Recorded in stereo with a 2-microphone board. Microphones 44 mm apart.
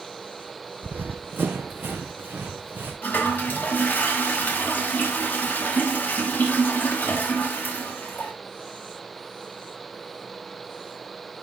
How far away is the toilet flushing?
About 1.5 m.